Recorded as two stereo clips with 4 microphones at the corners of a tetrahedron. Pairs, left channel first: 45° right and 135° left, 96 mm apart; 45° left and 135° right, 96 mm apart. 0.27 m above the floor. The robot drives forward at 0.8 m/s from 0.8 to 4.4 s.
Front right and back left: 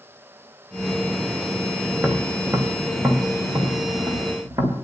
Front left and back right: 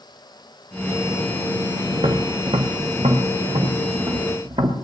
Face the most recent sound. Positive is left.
turn(degrees=-160)